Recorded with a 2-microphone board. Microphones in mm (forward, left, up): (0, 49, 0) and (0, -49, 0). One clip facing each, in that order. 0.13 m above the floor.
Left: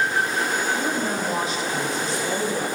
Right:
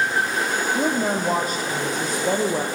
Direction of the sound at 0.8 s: 45° right (ahead or behind).